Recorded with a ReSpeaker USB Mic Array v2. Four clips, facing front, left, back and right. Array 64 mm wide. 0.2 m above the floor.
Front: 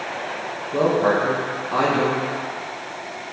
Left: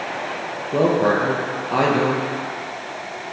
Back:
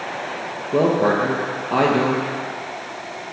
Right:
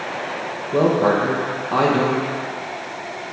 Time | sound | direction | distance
0.7 | a woman speaking | 150° left | 3.5 m